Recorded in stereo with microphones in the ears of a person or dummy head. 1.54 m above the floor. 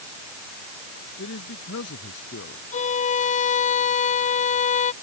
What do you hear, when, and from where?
1.2 s a man speaking: 65° left (ahead or behind)
2.7 s a violin: 40° left (ahead or behind)